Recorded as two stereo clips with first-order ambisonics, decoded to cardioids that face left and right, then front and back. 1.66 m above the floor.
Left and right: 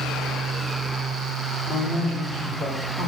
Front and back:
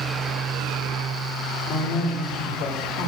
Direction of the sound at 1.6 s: 45° left.